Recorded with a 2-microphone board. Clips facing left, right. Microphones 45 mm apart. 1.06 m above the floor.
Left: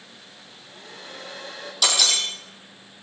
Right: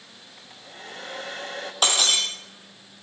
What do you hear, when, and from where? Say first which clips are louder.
0.4 s a hair dryer: right 5 dB; 70° right (ahead or behind), 7.5 m
1.8 s breaking glass: even; 35° right (ahead or behind), 5 m